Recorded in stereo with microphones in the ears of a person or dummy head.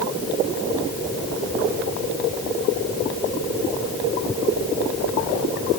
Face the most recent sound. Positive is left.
No sound to turn to.